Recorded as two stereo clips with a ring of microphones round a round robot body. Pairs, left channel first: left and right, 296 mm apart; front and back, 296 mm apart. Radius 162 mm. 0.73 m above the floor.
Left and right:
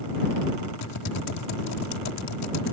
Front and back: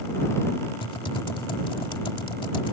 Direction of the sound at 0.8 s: 75° left.